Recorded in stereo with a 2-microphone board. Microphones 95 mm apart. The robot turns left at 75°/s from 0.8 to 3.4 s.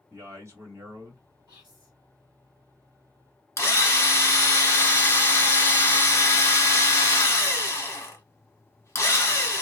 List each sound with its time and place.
0.1 s a man speaking: 50° right, 1.4 m; by 1.2 s 80° right, 1.4 m
1.5 s whispering: 140° right, 1.3 m; by 1.9 s 175° right, 1.3 m
3.6 s a drill: 30° left (ahead or behind), 0.9 m